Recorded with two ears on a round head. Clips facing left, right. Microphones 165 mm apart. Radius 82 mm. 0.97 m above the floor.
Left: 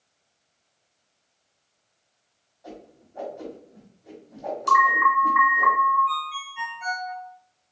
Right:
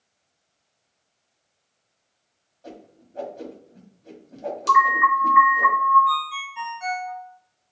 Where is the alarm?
30° right (ahead or behind), 2.5 m.